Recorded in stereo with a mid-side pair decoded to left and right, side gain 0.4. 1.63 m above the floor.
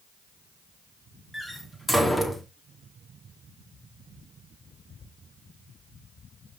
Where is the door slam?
10° left, 2.5 m.